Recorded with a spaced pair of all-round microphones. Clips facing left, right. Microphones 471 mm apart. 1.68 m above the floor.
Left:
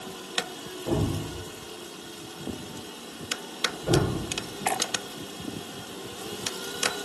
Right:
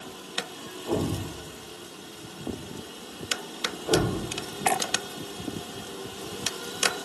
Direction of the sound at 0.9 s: 70° left (ahead or behind).